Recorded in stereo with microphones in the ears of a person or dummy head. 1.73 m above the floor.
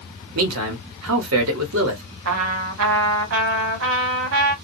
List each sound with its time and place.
0.3 s a man speaking: 75° right (ahead or behind), 1.0 m
2.2 s a trumpet: 80° right, 1.1 m